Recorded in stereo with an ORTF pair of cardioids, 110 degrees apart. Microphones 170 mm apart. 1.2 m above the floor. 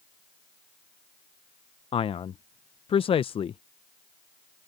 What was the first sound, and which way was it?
A man speaking, 35° left.